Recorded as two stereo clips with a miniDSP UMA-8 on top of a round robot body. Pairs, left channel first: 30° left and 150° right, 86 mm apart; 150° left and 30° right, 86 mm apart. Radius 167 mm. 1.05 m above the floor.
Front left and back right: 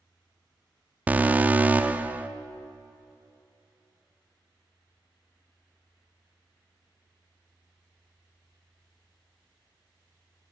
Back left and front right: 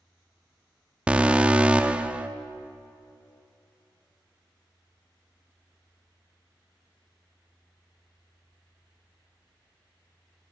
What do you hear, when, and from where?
1.1 s an alarm: 95° right, 0.6 m